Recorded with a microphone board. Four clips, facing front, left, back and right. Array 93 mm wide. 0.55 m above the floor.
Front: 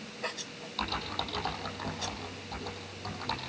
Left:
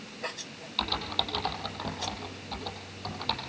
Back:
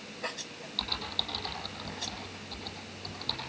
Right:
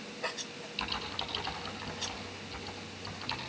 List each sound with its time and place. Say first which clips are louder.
0.8 s typing on a keyboard: left 6 dB, front 5 dB; 70° left, 5.5 m